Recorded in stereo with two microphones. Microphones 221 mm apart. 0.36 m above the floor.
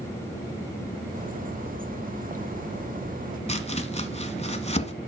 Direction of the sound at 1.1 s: 40° right (ahead or behind).